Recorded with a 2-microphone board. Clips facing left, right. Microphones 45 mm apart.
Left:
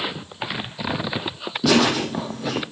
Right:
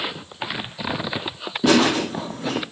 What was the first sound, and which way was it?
Laughter, 25° right (ahead or behind).